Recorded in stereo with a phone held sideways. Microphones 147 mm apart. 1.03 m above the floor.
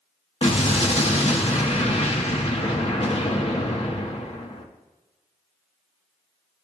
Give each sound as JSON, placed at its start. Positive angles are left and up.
{"t": 0.4, "sound": "an explosion", "side_deg": 45, "distance_m": 1.5}